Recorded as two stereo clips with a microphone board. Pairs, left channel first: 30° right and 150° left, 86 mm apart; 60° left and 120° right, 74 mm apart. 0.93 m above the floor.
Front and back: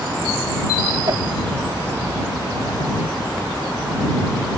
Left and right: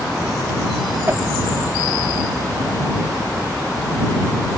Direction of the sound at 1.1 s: 175° right.